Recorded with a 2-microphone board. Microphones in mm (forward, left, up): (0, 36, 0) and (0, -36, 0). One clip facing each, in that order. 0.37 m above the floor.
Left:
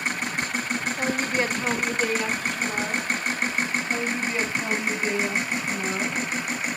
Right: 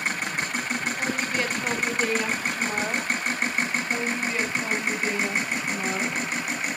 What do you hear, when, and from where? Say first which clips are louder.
1.0 s a woman speaking: left 4 dB; 35° left (ahead or behind), 1.4 m; by 3.1 s 35° right (ahead or behind), 1.0 m
3.9 s a woman speaking: left 1 dB; 5° left (ahead or behind), 1.6 m